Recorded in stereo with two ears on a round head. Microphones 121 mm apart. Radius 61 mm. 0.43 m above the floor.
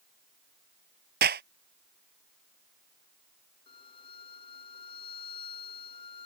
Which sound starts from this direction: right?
A clap, at 1.2 s.